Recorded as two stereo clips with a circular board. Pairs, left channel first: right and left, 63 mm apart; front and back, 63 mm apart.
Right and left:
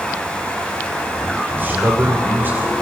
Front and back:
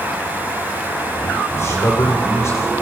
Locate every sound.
1.6 s a man speaking: 35° left, 5.5 m